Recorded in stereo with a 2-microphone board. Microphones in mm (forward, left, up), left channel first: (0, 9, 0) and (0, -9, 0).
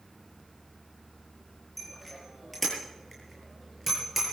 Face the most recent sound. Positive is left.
turn(degrees=-10)  # may be behind; listen again after turning